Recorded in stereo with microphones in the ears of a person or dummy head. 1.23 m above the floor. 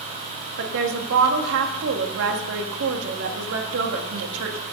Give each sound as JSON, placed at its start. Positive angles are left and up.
{"t": 0.6, "sound": "a woman speaking", "side_deg": -70, "distance_m": 1.7}